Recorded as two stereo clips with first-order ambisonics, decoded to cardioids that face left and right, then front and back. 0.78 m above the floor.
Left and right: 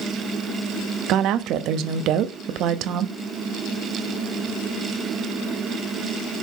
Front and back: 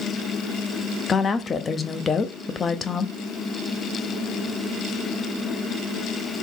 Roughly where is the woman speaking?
Ahead right.